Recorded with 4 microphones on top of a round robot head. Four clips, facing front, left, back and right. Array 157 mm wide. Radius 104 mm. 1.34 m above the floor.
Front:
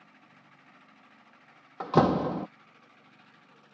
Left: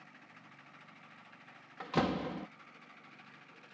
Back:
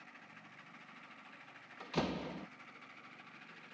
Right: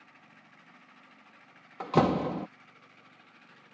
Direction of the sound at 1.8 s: 30° right.